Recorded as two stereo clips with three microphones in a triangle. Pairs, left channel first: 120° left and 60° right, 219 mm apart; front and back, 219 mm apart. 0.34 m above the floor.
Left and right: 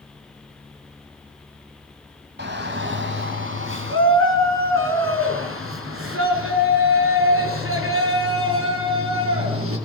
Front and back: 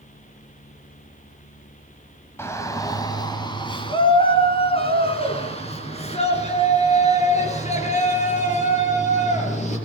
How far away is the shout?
About 2.5 m.